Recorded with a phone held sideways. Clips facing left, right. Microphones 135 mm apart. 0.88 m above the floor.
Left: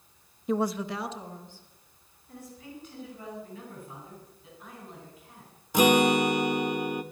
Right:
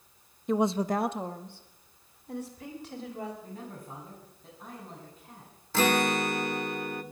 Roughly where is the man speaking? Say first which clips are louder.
Right 1 dB; right.